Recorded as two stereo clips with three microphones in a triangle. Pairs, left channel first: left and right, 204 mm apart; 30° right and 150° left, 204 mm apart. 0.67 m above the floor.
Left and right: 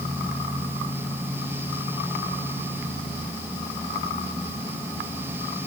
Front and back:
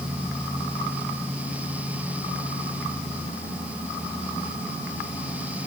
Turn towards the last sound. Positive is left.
No sound to turn to.